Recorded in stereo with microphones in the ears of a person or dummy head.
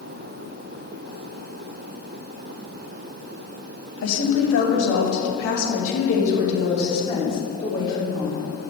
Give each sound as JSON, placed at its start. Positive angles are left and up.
{"t": 4.0, "sound": "a woman speaking", "side_deg": 80, "distance_m": 1.9}